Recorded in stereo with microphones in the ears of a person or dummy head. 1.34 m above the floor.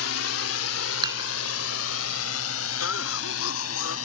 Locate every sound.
0.0 s a drone: 75° left (ahead or behind); by 4.1 s 80° left
1.0 s dishes clattering: 25° right (ahead or behind)
2.8 s a cough: 75° left (ahead or behind)